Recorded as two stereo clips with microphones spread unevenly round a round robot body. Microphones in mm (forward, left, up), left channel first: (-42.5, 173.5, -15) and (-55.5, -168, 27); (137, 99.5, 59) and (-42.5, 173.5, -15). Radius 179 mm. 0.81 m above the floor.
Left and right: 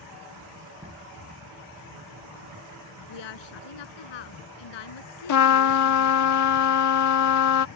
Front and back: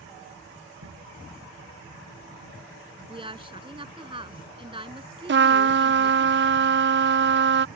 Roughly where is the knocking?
Behind.